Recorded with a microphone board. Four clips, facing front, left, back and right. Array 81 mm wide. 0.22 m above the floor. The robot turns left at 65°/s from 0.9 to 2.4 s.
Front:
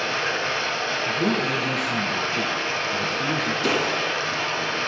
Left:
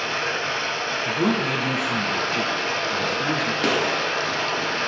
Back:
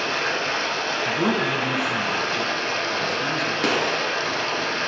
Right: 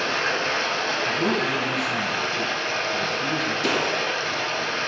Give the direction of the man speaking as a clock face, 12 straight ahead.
7 o'clock.